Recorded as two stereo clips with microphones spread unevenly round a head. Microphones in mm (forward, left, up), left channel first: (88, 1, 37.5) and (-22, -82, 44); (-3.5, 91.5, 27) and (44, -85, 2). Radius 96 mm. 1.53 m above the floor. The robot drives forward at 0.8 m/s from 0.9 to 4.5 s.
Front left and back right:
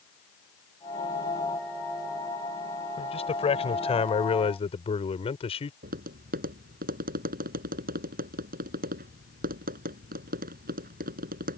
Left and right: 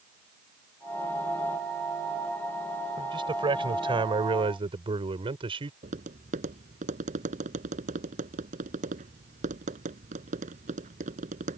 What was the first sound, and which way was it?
A man speaking, 10° right.